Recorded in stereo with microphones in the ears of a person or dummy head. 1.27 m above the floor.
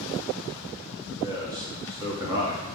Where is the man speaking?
20° right (ahead or behind), 2 m.